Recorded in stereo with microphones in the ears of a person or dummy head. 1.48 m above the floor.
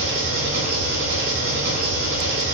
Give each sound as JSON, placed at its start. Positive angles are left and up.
{"t": 0.0, "sound": "an engine running", "side_deg": -60, "distance_m": 1.6}